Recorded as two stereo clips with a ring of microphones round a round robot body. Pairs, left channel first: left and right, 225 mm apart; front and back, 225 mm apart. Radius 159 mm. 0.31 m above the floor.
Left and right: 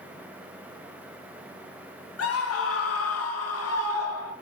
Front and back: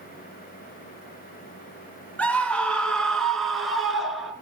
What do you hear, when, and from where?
2.2 s a scream: 85° left, 3 m; by 4.3 s 90° left, 4.5 m